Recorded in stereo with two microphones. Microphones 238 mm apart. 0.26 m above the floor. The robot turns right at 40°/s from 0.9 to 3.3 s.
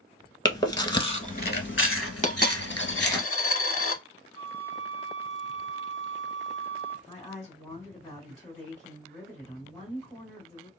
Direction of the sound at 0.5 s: 20° left (ahead or behind).